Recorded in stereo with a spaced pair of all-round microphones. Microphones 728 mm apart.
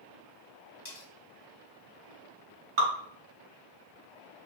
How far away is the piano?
No piano in this recording.